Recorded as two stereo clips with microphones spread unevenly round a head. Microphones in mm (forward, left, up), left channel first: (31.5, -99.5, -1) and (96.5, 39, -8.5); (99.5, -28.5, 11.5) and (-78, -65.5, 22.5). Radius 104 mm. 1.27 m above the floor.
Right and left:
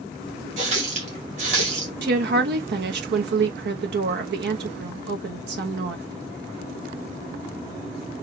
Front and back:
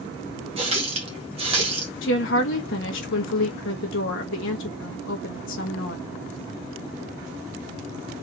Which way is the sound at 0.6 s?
125° left.